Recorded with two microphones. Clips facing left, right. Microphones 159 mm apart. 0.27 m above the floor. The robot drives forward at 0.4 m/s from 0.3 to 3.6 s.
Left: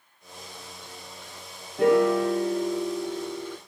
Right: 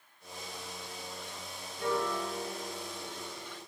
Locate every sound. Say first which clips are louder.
1.8 s a piano: left 13 dB; 85° left, 1.1 m; by 3.6 s 60° left (ahead or behind), 1.3 m